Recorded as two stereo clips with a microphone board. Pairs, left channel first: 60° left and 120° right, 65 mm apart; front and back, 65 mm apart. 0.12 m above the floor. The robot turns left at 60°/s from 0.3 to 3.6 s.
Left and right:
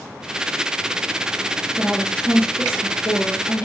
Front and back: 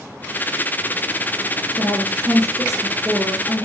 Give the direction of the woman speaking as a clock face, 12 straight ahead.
7 o'clock.